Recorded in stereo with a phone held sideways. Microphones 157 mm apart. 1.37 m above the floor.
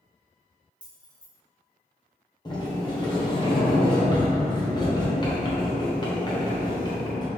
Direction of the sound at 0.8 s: 5° left (ahead or behind).